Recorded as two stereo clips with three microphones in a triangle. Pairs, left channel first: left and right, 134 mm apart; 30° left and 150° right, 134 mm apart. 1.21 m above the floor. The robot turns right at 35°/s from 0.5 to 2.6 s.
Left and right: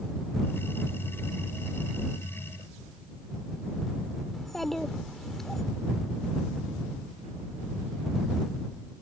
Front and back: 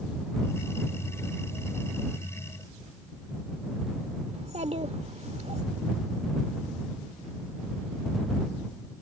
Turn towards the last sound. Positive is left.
turn(degrees=180)